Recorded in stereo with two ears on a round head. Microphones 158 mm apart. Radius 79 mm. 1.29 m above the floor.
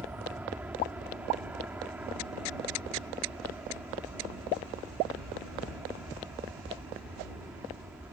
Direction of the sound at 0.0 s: 10° right (ahead or behind).